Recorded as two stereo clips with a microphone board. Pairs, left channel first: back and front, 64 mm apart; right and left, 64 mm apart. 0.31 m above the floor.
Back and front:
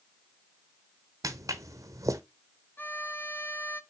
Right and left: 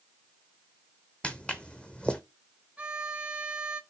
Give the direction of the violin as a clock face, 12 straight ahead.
7 o'clock.